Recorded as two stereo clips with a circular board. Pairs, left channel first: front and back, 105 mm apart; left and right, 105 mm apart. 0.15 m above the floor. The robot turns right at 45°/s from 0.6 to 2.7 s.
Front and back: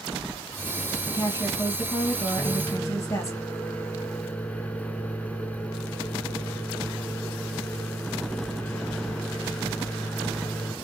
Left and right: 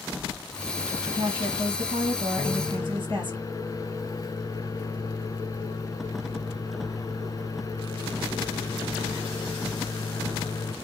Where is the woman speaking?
135° right, 3.5 m; by 3.4 s 60° right, 3.5 m.